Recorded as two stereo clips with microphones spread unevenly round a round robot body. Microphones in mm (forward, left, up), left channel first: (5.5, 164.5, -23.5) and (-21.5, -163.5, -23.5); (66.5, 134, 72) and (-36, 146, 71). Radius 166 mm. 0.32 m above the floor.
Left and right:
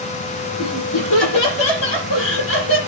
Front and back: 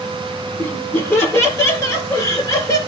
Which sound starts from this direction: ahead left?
Laughter, at 0.6 s.